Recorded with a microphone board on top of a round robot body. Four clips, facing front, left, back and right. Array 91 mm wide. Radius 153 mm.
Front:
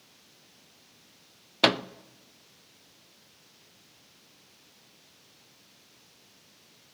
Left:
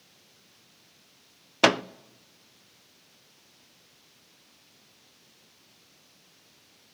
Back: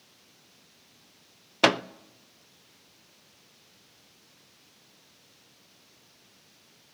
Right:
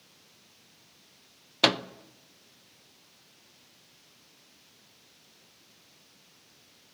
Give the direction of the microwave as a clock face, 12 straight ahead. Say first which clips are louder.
Left 4 dB, back 2 dB; 8 o'clock.